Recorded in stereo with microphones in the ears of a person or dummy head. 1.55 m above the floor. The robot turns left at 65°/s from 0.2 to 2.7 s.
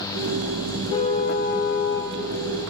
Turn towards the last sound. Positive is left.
turn(degrees=30)